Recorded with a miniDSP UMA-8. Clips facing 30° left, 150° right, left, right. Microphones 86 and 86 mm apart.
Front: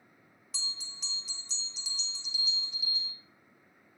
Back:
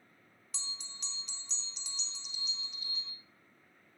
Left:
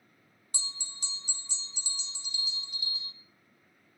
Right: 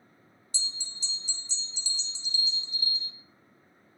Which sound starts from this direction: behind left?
A bell, at 0.5 s.